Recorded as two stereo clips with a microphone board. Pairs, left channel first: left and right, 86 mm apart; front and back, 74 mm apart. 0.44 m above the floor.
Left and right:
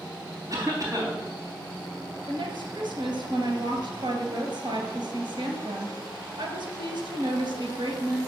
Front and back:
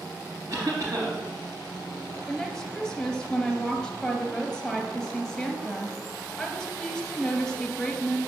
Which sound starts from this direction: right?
A woman speaking, at 2.3 s.